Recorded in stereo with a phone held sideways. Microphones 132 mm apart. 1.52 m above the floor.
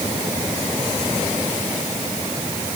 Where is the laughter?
I don't hear laughter.